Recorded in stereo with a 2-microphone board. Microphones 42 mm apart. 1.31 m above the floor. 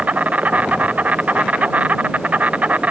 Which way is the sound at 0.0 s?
35° right (ahead or behind).